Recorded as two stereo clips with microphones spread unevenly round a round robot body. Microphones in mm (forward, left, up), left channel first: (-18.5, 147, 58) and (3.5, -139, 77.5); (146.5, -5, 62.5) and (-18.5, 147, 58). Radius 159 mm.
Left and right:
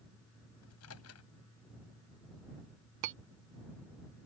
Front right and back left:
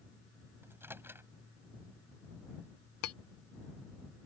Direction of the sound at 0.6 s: 55° left.